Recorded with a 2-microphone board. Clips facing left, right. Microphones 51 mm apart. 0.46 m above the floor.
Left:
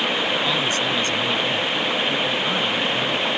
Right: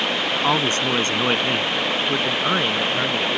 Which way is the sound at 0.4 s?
40° right (ahead or behind).